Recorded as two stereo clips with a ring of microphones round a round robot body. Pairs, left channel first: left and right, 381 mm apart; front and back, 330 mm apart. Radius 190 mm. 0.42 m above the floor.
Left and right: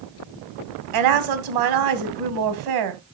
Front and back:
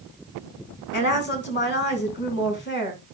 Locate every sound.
0.9 s a woman speaking: 60° right, 2 m